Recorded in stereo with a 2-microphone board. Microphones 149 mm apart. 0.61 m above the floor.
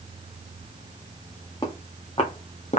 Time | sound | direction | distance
1.6 | footsteps | 30° left (ahead or behind) | 2.0 m